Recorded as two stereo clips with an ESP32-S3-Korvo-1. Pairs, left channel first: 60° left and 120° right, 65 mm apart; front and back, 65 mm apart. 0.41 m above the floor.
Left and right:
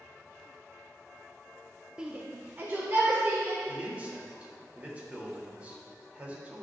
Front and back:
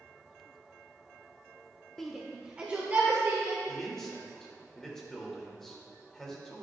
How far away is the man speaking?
About 1.5 m.